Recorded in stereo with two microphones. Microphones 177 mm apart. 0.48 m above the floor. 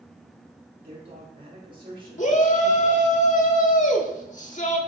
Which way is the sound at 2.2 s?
45° left (ahead or behind).